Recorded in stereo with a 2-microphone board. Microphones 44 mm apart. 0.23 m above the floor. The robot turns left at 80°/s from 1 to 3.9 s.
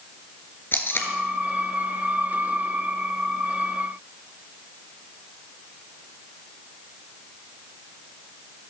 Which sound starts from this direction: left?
Tape being pulled, at 0.7 s.